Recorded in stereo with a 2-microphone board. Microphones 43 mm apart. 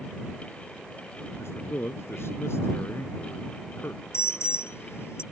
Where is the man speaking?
70° left (ahead or behind).